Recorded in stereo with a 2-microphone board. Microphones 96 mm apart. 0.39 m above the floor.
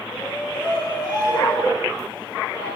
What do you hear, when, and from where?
0.1 s a shout: 50° left (ahead or behind), 7 m